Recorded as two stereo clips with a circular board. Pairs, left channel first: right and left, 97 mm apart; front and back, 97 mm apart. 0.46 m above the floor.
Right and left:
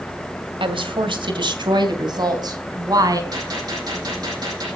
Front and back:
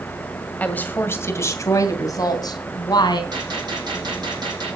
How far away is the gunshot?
About 9.5 m.